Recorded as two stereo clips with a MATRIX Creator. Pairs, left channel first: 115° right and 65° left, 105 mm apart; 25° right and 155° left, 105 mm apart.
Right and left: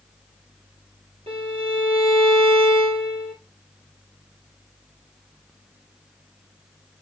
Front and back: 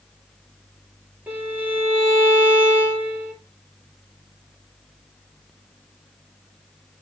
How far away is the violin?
About 7 m.